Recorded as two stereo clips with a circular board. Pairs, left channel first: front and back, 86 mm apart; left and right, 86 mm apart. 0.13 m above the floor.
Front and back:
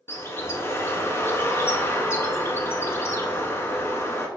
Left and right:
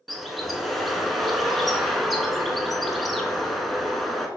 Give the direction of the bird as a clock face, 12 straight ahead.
12 o'clock.